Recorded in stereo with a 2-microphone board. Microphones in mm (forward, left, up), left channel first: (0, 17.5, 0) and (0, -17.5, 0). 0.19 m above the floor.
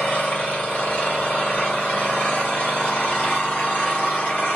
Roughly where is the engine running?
Left.